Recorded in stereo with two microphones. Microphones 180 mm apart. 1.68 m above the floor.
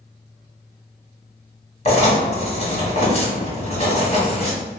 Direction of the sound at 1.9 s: 35° left (ahead or behind).